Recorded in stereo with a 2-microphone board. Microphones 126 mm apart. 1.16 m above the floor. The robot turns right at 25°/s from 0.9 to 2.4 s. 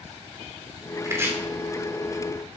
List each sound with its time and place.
1.1 s chopping: 25° right (ahead or behind), 2.5 m; by 1.3 s 20° right (ahead or behind), 2.5 m